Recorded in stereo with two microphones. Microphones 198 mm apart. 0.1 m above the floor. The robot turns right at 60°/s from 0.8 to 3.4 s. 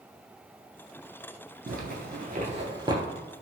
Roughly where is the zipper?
Right.